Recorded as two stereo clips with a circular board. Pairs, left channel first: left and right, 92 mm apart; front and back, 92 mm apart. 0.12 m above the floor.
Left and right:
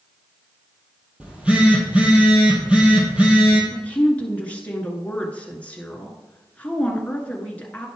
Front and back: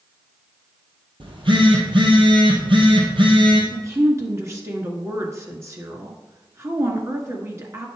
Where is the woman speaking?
155° left, 1.8 m.